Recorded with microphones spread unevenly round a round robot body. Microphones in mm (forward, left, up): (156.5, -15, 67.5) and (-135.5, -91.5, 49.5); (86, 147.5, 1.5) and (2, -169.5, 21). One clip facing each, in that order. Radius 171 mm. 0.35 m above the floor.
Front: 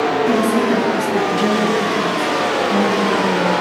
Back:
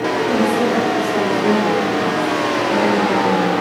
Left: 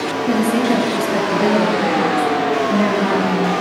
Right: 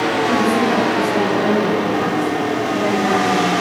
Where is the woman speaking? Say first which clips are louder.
Front 1 dB, left 3 dB; 50° left, 6 m; by 3.5 s 85° left, 8 m.